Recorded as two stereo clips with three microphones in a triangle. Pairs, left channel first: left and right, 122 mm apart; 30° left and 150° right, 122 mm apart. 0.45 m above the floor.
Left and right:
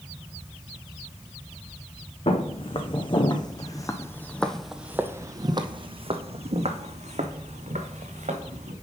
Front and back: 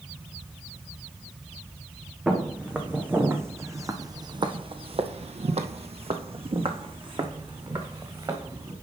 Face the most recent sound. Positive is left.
turn(degrees=-95)